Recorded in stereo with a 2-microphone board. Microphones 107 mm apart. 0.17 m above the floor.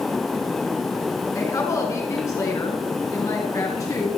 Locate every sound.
1.4 s a woman speaking: 30° left (ahead or behind), 1.8 m